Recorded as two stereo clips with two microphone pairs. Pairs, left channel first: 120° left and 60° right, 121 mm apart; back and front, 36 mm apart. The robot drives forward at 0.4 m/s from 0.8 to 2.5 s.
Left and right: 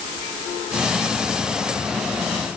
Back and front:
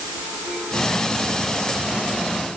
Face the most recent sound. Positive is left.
No sound to turn to.